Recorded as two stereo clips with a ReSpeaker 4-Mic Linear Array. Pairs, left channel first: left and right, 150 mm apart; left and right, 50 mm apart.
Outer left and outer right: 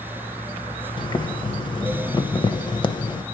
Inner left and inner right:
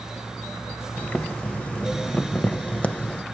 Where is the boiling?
30° left (ahead or behind), 0.6 m.